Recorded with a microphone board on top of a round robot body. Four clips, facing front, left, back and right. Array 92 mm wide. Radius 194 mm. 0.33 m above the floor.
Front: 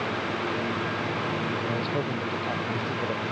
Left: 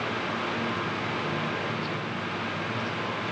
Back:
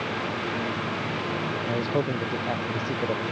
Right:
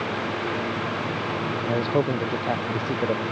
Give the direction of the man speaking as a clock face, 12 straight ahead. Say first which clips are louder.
Right 9 dB, back 2 dB; 4 o'clock.